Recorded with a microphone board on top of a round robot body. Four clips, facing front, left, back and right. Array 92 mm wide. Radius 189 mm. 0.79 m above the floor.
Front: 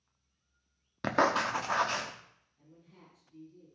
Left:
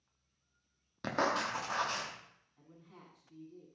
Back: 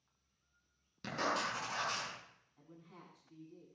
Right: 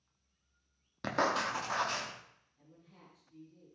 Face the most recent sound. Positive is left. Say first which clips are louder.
# left 3 dB, back 1 dB
turn(degrees=145)